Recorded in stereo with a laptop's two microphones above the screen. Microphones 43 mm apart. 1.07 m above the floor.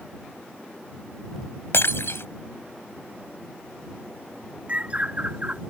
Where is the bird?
30° right (ahead or behind).